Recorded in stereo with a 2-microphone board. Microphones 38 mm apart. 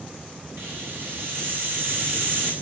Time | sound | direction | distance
0.6 | a hiss | 65° right (ahead or behind) | 5 m